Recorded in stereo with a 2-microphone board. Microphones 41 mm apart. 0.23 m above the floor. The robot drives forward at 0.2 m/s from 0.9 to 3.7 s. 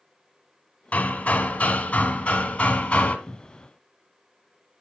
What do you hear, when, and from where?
0.9 s hammering: 35° left (ahead or behind), 1.7 m; by 3.2 s 30° left (ahead or behind), 1.9 m
3.3 s a cupboard door: 10° right (ahead or behind), 0.8 m